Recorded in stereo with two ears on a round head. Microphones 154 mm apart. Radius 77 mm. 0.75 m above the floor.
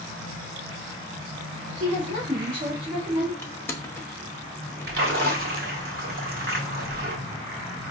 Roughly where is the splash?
Right.